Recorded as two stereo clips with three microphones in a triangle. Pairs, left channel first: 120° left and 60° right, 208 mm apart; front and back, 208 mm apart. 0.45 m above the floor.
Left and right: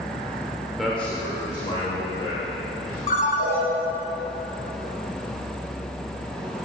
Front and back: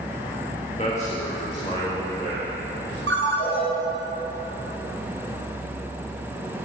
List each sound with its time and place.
0.8 s a man speaking: 30° left, 1.0 m; by 3.0 s 70° left, 2 m
3.1 s a ringtone: 175° left, 1.8 m